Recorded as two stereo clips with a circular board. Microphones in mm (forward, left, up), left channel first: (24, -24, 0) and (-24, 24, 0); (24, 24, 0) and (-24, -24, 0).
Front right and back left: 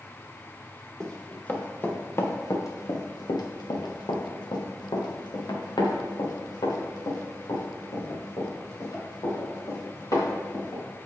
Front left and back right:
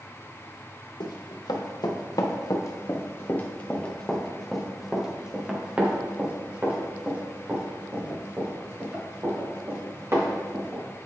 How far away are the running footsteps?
About 1.9 m.